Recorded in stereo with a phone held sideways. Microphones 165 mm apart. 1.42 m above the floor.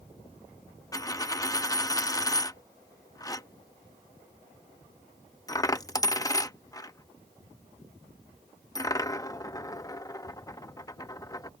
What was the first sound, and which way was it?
A dropped coin, 20° left (ahead or behind).